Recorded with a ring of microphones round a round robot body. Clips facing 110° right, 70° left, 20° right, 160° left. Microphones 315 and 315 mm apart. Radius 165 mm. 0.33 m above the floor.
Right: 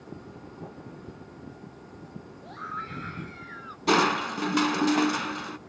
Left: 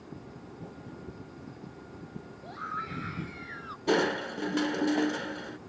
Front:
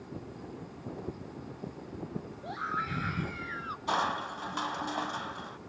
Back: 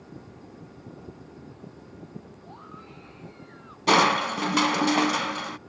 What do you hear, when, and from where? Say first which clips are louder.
2.4 s a scream: even, front 4 dB; 25° right; by 3.8 s 10° right
3.9 s crushing: right 1 dB, back 14 dB; straight behind